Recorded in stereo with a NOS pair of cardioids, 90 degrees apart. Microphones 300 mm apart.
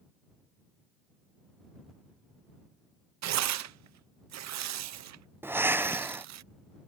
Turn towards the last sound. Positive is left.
turn(degrees=-10)